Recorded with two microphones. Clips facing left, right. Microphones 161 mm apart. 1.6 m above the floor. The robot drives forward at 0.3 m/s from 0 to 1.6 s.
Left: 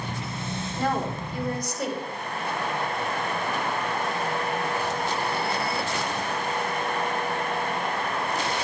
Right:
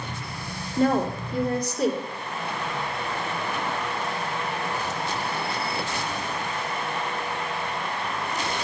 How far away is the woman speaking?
About 3 m.